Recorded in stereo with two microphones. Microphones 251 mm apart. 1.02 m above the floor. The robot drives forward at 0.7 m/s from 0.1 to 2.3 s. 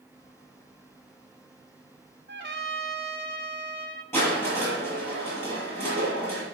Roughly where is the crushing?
Centre.